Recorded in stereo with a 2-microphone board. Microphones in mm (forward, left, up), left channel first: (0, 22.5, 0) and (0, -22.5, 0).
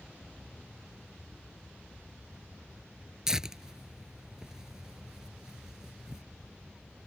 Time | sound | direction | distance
0.0 | an aircraft | 30° right (ahead or behind) | ?
3.3 | tearing paper | 15° right (ahead or behind) | ?